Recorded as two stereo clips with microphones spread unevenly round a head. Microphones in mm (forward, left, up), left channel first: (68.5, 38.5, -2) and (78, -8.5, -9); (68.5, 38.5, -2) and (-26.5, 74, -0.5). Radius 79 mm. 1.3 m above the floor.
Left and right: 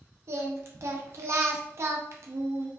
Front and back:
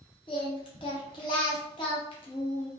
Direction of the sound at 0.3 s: 70° right.